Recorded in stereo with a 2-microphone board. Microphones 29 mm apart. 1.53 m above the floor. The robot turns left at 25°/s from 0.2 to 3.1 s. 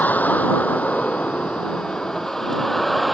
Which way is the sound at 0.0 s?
70° left (ahead or behind).